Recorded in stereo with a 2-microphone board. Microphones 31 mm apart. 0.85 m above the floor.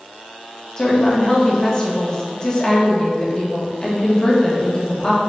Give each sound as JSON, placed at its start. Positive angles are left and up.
{"t": 0.8, "sound": "a woman speaking", "side_deg": 30, "distance_m": 1.2}